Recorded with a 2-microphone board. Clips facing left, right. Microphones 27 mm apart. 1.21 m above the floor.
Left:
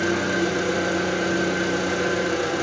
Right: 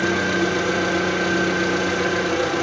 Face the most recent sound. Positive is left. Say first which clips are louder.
# right 2 dB
turn(degrees=-45)  # may be behind; listen again after turning